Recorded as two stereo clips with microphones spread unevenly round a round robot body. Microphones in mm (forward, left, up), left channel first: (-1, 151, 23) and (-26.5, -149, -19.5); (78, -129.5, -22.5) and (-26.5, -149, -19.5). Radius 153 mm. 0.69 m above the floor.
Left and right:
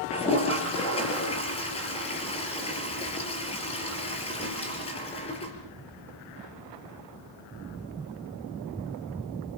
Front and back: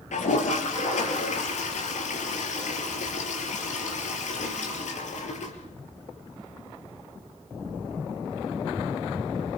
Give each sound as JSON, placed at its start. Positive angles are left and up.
{"t": 0.1, "sound": "a toilet flushing", "azimuth_deg": 15, "distance_m": 4.0}